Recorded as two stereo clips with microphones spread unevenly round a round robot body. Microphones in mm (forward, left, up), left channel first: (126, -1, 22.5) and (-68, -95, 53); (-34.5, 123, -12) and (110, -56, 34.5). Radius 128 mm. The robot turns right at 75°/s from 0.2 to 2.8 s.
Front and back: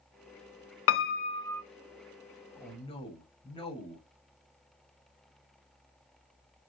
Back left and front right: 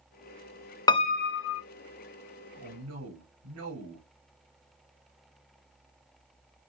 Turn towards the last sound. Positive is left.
turn(degrees=-35)